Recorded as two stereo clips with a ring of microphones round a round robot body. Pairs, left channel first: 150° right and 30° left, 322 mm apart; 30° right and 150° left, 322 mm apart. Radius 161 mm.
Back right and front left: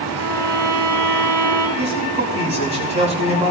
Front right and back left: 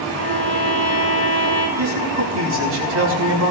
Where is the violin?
45° left, 4 m.